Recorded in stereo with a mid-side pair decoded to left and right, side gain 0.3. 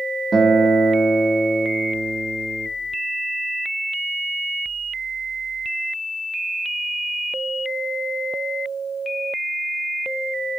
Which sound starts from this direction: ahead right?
A guitar, at 0.3 s.